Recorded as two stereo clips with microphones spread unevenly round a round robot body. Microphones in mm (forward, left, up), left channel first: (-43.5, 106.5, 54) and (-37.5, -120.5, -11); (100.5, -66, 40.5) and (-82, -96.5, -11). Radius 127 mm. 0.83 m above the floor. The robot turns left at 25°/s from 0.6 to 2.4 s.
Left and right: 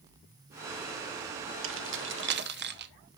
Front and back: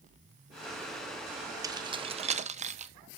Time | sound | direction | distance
1.6 | keys jangling | 105° right | 1.0 m